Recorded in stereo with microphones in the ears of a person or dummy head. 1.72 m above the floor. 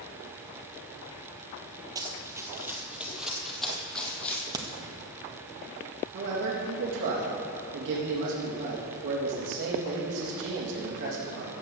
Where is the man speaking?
65° right (ahead or behind), 3.5 m.